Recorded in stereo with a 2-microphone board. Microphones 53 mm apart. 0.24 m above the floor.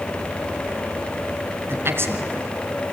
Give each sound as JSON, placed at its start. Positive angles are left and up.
{"t": 1.7, "sound": "a man speaking", "side_deg": -50, "distance_m": 2.5}